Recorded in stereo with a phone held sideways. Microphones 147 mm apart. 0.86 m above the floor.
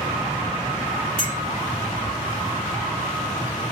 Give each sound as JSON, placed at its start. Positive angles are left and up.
{"t": 1.2, "sound": "a clink", "side_deg": 75, "distance_m": 2.5}